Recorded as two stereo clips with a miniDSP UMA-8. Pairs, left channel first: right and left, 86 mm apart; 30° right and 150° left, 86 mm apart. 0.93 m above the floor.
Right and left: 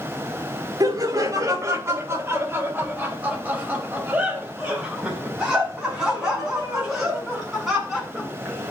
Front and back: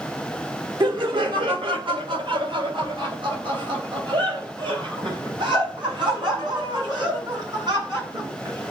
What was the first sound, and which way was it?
Laughter, 130° left.